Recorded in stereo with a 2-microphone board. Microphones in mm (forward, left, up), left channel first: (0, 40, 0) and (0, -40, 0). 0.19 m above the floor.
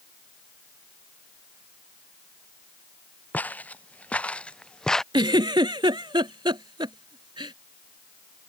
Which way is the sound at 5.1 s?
75° right (ahead or behind).